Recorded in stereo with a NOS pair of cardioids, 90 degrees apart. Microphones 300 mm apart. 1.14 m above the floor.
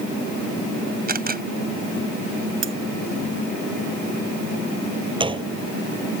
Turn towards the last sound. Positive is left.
turn(degrees=-15)